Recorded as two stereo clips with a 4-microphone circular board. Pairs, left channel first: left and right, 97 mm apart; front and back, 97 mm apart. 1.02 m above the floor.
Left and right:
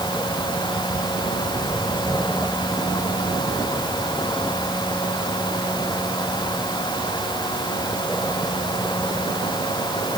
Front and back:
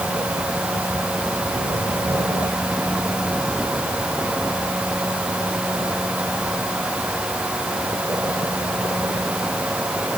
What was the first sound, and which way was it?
Only background noise.